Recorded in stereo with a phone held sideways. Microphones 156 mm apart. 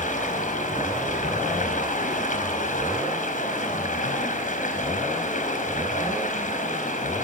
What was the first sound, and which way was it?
Running water, 65° left (ahead or behind).